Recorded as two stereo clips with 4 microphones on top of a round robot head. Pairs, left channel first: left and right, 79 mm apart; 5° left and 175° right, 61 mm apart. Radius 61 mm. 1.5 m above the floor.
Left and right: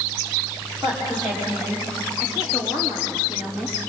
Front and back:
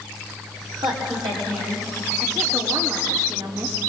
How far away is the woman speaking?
About 4.5 m.